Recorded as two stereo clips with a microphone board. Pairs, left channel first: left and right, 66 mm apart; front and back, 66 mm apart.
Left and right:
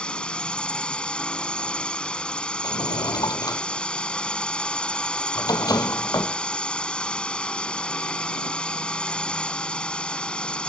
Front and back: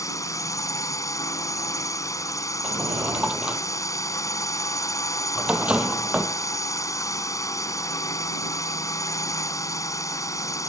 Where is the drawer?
105° left.